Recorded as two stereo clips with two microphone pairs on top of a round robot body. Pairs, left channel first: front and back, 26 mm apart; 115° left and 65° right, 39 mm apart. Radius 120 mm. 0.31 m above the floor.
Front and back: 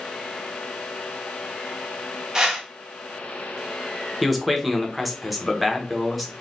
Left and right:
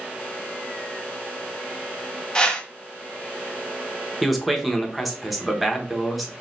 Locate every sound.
2.4 s a whoosh: 100° left, 1.1 m
4.2 s a man speaking: 45° left, 1.0 m